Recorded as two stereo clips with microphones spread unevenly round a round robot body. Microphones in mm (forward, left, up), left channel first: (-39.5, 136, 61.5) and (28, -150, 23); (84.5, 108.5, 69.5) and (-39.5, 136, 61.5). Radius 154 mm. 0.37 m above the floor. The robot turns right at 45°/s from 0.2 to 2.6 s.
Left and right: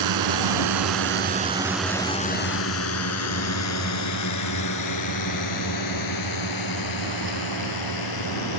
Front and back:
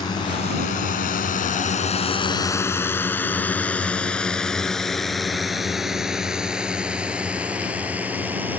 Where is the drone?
80° right; by 8.6 s 90° left.